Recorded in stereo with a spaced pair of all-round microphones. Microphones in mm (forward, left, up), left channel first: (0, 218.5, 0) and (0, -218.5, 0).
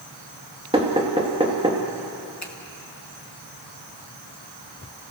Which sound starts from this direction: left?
A finger snap, at 2.4 s.